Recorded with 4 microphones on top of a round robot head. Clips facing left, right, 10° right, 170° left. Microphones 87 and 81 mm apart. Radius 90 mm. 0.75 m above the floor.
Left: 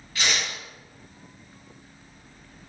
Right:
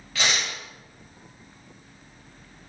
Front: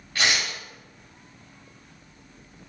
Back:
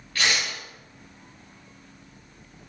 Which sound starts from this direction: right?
Tearing paper, at 0.1 s.